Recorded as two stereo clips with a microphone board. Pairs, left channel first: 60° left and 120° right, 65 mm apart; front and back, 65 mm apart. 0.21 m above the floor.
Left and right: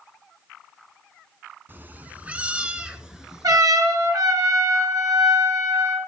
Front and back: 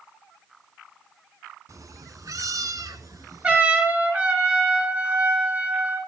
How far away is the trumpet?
About 4 m.